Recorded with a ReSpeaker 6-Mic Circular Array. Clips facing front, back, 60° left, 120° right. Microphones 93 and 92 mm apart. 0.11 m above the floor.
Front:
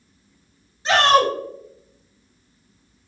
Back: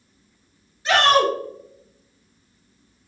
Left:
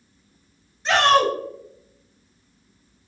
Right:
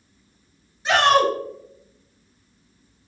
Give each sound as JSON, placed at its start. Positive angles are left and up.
{"t": 0.8, "sound": "a shout", "azimuth_deg": -45, "distance_m": 1.8}